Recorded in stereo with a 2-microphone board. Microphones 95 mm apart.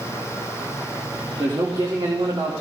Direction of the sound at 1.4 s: 50° right (ahead or behind).